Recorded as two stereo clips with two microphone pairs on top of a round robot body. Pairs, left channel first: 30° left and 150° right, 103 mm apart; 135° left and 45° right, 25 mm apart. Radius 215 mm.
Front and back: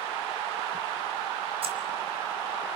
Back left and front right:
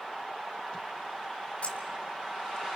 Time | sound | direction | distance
1.6 | keys jangling | straight behind | 0.9 m